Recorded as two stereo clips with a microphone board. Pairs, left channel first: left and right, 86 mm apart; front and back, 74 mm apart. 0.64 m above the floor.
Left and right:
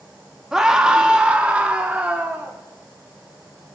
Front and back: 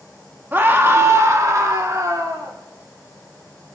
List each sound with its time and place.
0.5 s a scream: 165° right, 1.1 m; by 2.5 s 160° right, 2 m